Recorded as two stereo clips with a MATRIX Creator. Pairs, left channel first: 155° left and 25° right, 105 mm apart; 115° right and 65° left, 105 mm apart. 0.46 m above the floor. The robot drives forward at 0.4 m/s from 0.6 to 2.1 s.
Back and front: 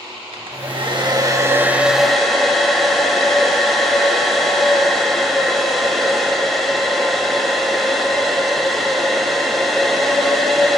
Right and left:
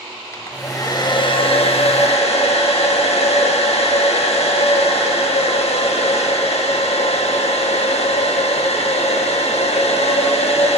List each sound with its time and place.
0.3 s a hair dryer: 55° right, 0.6 m; by 10.8 s 115° right, 0.6 m